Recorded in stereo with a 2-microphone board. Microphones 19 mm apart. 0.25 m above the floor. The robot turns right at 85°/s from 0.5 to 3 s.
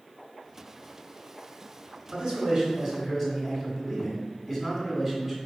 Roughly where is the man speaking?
Right.